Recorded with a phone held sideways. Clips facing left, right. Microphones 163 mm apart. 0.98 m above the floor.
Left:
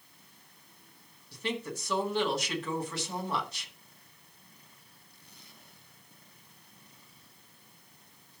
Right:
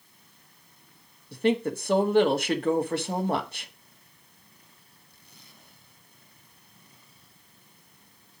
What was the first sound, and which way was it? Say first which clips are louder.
A woman speaking: right 11 dB; 55° right (ahead or behind).